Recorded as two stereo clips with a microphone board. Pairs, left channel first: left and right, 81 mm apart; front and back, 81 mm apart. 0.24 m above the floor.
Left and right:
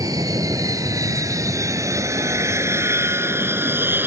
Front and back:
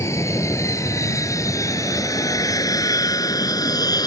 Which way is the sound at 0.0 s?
50° right.